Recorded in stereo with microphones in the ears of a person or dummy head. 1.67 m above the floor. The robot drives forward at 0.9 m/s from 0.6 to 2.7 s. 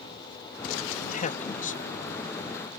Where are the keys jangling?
I don't hear keys jangling.